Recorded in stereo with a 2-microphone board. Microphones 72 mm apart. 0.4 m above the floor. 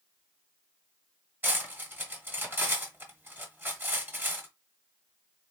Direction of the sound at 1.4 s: 30° right (ahead or behind).